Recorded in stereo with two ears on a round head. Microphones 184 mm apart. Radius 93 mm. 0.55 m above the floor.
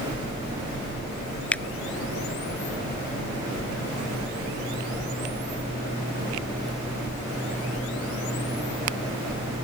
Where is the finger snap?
5° left (ahead or behind).